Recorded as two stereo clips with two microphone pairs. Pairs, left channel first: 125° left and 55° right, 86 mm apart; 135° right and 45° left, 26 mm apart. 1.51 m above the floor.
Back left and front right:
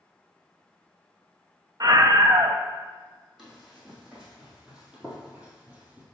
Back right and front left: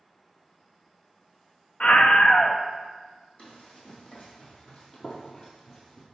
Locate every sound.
1.8 s a scream: 95° right, 0.6 m
3.4 s running footsteps: 140° right, 2.5 m; by 6.0 s 80° right, 1.6 m